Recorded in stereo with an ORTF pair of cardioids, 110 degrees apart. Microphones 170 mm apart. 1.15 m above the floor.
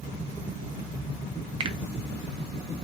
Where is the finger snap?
30° right, 0.6 m.